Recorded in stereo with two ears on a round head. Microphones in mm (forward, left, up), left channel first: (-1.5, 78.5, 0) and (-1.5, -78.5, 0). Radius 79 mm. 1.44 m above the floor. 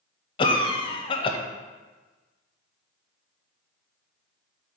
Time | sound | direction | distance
0.4 | a cough | 30° left (ahead or behind) | 0.8 m